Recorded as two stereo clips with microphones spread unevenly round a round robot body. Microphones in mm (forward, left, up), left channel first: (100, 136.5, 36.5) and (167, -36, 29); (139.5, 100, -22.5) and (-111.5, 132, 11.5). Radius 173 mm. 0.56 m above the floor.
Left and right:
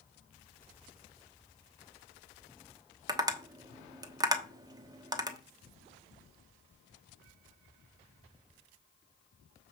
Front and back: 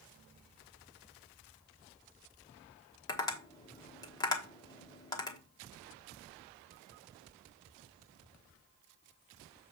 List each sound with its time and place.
3.1 s tapping: 40° right, 1.0 m